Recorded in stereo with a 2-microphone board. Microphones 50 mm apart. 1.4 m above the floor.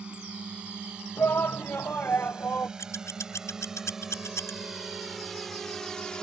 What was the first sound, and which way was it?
A drone, 20° right (ahead or behind).